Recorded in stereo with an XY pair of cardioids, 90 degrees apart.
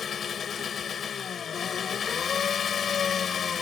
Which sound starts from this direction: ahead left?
An engine running, at 0.0 s.